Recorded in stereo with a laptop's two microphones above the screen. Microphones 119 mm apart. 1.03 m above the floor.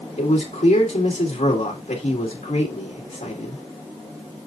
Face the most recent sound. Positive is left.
turn(degrees=80)